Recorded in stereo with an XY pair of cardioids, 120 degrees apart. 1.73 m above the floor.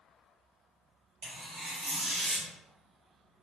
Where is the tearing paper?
70° right, 1.4 m.